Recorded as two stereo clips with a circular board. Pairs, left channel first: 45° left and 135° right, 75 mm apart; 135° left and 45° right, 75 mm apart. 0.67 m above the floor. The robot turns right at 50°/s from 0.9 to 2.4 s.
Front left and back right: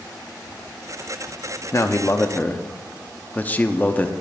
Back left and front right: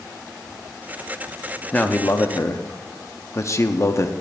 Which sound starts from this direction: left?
A man speaking, at 1.7 s.